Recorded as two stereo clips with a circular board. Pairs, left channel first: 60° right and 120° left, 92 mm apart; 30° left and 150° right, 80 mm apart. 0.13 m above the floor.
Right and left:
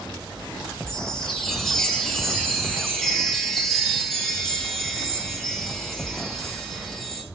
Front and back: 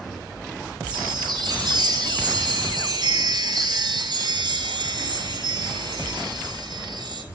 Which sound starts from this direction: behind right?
A chime, at 0.9 s.